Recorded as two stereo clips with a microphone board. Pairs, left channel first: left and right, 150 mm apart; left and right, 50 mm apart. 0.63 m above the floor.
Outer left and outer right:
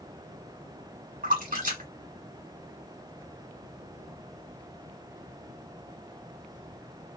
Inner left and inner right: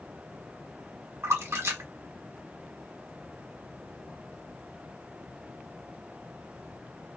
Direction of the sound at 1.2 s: 65° right (ahead or behind).